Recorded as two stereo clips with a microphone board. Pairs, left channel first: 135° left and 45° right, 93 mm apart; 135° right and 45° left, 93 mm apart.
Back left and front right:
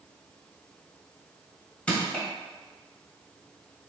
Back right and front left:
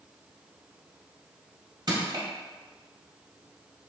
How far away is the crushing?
About 1.6 m.